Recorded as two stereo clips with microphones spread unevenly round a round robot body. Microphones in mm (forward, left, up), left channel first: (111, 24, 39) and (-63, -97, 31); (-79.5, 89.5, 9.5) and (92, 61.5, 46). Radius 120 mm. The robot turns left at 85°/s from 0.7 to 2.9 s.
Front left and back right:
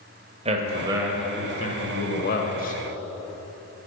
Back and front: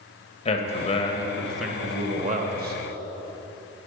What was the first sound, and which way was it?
A man speaking, 170° left.